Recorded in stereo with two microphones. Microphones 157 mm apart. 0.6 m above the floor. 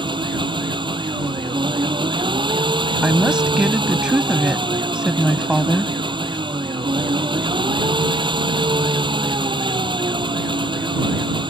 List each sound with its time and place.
0.0 s an engine running: 30° right (ahead or behind)
3.0 s a woman speaking: 5° right (ahead or behind)